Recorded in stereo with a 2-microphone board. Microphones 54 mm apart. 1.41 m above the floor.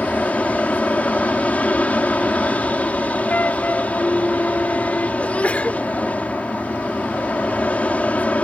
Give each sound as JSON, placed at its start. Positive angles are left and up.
{"t": 0.0, "sound": "an aircraft", "side_deg": 30}
{"t": 3.3, "sound": "a flute", "side_deg": 35}
{"t": 5.2, "sound": "a sneeze", "side_deg": 30}